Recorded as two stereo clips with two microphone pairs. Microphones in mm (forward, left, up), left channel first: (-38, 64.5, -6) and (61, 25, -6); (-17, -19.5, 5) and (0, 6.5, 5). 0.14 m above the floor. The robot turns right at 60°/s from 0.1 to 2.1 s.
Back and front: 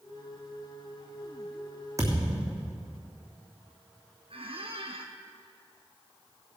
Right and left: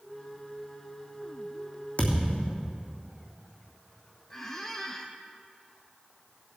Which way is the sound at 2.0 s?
85° right.